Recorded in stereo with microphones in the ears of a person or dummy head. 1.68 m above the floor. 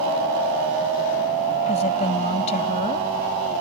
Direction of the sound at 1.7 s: 35° left (ahead or behind).